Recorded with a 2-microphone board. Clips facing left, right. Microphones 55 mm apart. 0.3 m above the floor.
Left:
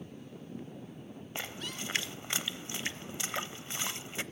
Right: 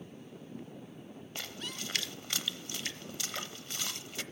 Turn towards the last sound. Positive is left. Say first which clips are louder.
# left 2 dB
turn(degrees=25)  # may be behind; listen again after turning